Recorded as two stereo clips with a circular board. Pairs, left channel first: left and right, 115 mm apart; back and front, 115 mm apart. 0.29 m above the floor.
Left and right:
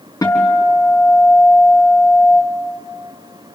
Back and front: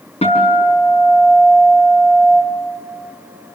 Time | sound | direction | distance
0.2 | a guitar | 150° left | 5 m